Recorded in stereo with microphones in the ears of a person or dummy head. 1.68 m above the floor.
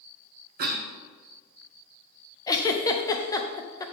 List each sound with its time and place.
0.6 s a cough: 50° right (ahead or behind), 1.5 m
2.5 s a giggle: 20° left (ahead or behind), 0.8 m